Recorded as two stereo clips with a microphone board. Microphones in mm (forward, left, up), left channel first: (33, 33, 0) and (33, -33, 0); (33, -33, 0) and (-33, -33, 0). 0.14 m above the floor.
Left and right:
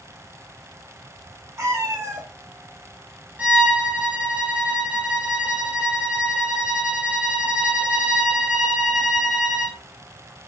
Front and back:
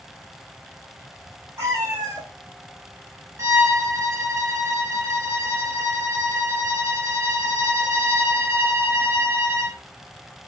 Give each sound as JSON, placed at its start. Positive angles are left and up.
{"t": 1.6, "sound": "a cat meowing", "azimuth_deg": -130, "distance_m": 1.6}
{"t": 3.4, "sound": "a violin", "azimuth_deg": -150, "distance_m": 0.6}